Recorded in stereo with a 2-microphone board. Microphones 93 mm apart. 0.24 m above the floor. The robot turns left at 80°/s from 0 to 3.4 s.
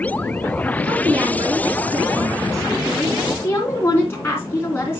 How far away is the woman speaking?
About 3 m.